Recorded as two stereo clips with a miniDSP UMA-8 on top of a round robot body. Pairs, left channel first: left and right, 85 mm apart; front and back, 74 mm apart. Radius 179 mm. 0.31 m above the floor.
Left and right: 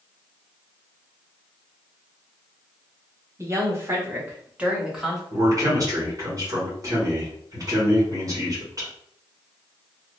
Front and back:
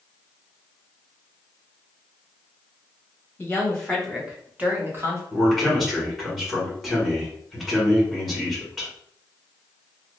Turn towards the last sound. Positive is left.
turn(degrees=-90)